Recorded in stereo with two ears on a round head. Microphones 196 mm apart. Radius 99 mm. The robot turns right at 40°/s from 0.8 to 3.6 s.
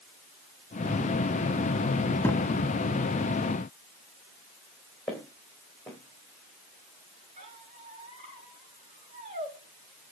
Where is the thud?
10° left (ahead or behind), 1.6 m; by 2.5 s 15° left (ahead or behind), 1.6 m.